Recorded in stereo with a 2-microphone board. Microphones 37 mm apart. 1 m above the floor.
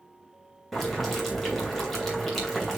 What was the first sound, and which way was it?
Boiling, 5° left (ahead or behind).